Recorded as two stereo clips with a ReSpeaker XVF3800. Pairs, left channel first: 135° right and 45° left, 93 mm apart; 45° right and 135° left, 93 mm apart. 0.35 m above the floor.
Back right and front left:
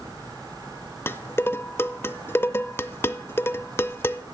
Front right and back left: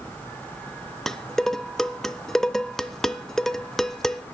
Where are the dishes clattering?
125° right, 0.5 m.